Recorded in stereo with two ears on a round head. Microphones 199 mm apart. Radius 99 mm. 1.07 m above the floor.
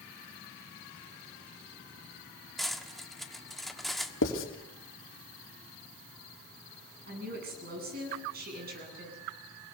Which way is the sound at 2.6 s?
Centre (ahead or behind).